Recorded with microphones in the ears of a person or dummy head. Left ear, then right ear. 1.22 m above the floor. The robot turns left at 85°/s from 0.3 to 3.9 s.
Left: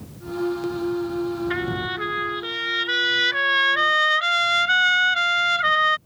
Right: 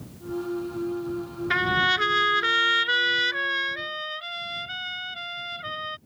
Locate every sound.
1.5 s a trumpet: 30° right; by 6.0 s 125° left